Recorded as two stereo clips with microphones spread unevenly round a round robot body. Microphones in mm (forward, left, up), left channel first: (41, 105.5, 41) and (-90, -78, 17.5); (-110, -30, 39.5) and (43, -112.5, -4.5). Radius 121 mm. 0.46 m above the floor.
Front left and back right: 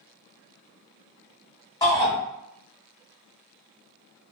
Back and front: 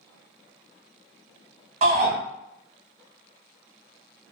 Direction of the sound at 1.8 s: 20° right.